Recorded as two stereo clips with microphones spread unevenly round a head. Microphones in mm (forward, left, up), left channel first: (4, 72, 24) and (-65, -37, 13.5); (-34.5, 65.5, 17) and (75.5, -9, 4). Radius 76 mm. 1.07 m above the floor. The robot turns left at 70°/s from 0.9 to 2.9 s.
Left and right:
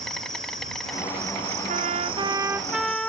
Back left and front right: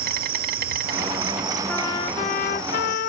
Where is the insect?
30° right; by 3.1 s 170° right.